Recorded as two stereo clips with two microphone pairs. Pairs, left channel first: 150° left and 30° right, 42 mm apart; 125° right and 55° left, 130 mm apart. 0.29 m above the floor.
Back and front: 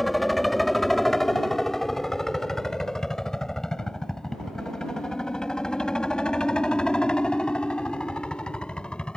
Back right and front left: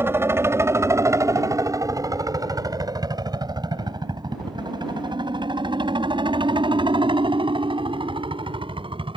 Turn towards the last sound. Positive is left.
turn(degrees=90)